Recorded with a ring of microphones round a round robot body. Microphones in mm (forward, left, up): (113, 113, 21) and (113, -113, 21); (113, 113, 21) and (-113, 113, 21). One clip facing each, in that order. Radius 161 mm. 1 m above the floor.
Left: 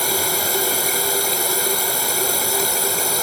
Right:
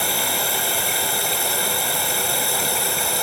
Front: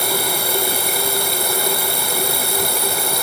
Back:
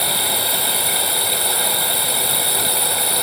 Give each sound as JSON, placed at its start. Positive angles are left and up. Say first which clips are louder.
{"t": 0.0, "sound": "running water", "louder": "left 3 dB, front 3 dB", "azimuth_deg": 40}